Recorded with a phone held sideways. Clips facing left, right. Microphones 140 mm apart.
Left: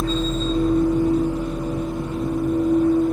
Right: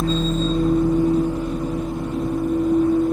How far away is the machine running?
About 1.8 m.